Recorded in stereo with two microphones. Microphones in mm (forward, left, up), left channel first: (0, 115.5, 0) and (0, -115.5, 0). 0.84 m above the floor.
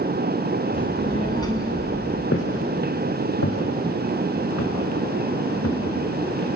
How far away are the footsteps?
About 4.5 m.